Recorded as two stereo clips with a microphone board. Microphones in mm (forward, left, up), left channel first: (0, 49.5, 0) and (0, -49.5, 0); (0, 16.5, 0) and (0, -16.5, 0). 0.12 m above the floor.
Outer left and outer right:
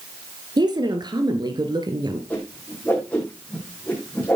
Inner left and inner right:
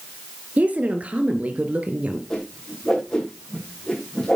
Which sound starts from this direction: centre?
A whoosh, at 2.3 s.